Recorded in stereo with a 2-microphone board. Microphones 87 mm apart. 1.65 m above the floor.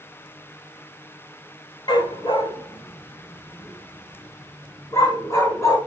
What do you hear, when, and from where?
1.9 s a dog barking: 55° left (ahead or behind), 2.5 m; by 5.8 s 30° left (ahead or behind), 4.5 m